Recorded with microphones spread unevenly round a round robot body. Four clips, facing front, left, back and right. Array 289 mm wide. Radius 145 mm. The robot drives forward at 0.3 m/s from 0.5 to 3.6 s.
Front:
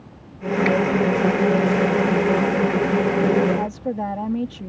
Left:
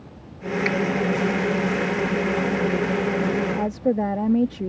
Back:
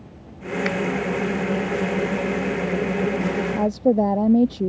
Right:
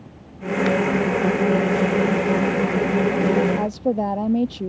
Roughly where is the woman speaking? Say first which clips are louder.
Even, back 6 dB; behind.